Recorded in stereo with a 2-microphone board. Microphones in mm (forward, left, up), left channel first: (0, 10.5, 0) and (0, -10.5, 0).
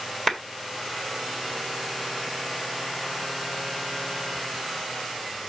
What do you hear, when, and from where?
0.3 s a clap: 15° left (ahead or behind), 1.8 m